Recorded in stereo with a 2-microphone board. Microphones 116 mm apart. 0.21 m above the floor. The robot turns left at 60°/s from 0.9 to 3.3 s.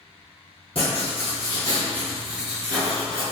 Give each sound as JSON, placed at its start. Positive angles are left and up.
{"t": 0.8, "sound": "writing", "azimuth_deg": 80, "distance_m": 1.6}